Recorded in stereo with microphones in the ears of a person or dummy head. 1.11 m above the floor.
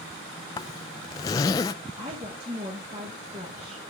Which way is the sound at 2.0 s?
25° right (ahead or behind).